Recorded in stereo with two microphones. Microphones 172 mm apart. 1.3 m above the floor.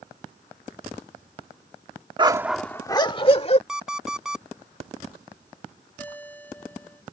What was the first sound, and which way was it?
A dog barking, 30° right (ahead or behind).